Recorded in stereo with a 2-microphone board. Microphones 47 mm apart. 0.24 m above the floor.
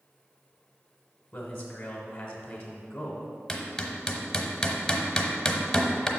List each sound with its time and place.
1.3 s a man speaking: 20° left (ahead or behind), 1.2 m
3.5 s hammering: 10° left (ahead or behind), 0.9 m